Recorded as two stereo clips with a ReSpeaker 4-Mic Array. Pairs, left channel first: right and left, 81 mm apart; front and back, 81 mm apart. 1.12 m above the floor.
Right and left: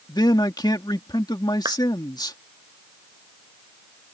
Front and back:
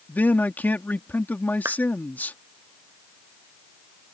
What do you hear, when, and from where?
0.1 s a man speaking: 65° right
1.6 s a clap: 125° left